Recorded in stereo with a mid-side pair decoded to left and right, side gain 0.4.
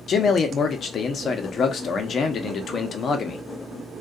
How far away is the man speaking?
About 0.7 m.